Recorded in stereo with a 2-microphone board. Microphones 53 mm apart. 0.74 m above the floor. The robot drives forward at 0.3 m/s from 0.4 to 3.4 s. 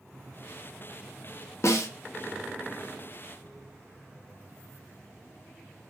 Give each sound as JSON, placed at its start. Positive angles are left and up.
{"t": 1.6, "sound": "a snare drum", "side_deg": 60, "distance_m": 0.5}